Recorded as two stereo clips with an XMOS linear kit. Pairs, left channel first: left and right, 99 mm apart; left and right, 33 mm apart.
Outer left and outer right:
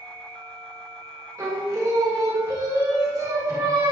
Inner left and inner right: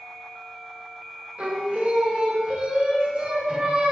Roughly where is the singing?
Right.